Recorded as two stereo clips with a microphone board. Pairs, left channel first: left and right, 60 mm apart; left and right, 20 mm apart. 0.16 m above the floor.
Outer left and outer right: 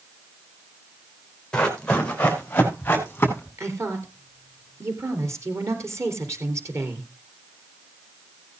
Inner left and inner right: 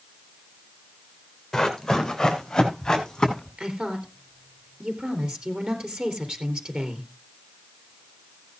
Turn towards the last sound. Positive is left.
turn(degrees=-55)  # may be behind; listen again after turning